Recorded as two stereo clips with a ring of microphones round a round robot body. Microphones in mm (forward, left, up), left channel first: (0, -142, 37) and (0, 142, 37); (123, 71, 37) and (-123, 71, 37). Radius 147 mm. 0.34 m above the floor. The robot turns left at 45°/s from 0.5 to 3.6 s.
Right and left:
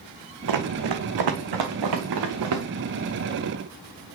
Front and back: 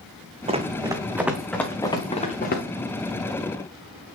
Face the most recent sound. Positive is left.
turn(degrees=5)